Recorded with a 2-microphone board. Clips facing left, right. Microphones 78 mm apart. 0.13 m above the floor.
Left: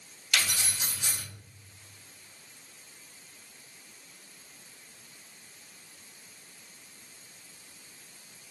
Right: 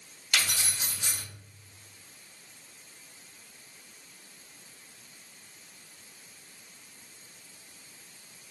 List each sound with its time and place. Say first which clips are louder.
0.3 s keys jangling: even; 60° right (ahead or behind), 1.8 m